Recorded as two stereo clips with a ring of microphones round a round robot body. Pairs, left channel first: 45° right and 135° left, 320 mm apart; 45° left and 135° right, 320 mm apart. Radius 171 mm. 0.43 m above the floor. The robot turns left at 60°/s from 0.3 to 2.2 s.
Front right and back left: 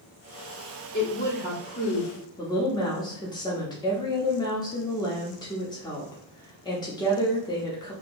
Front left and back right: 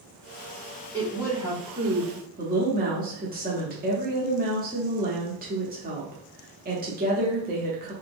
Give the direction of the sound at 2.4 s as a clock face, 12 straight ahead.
4 o'clock.